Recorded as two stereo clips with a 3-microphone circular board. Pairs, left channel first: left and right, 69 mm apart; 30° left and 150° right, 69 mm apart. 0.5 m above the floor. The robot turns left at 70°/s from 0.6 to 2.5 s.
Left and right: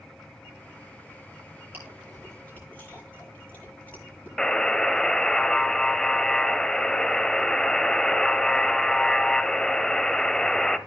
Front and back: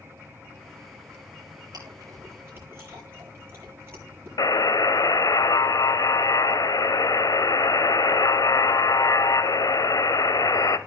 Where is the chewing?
150° right, 9 m; by 4.3 s 155° left, 9 m.